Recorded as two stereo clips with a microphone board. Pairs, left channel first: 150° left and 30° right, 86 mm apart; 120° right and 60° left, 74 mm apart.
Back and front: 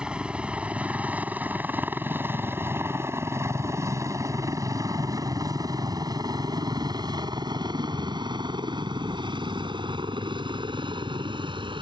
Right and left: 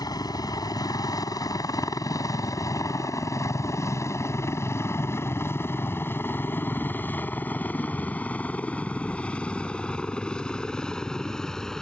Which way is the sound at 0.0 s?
110° right.